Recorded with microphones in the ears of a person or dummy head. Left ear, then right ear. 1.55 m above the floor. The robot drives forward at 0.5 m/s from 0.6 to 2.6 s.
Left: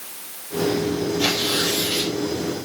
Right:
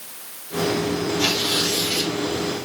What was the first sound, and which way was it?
Tearing paper, 15° right (ahead or behind).